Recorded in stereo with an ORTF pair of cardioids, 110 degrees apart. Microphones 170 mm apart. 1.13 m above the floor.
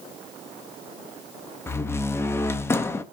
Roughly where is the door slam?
Ahead.